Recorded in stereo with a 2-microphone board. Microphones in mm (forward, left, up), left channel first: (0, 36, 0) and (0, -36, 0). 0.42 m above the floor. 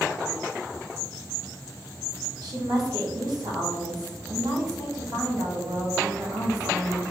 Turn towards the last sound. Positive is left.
turn(degrees=-65)  # may be behind; listen again after turning